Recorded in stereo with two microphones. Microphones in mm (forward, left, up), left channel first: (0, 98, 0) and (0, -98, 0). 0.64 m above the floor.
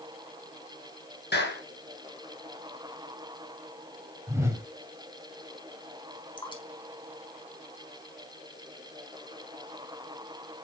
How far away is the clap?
About 6 m.